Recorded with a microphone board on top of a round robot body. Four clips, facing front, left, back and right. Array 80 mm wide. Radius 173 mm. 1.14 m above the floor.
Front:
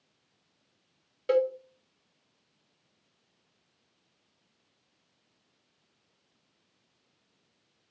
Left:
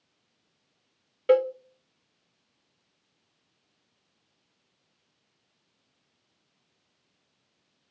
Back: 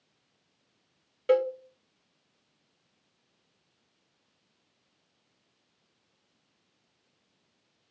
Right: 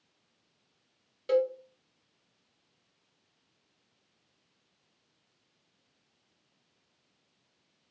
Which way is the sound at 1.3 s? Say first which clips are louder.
Left 5 dB, back 1 dB; 100° left.